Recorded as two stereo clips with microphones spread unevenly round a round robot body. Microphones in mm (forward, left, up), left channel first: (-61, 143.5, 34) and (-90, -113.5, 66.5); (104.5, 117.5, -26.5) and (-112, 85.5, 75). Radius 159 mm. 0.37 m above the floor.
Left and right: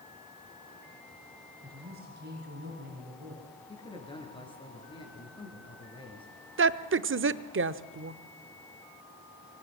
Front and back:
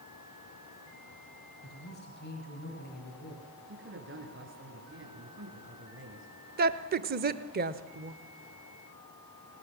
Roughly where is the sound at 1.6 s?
Ahead right.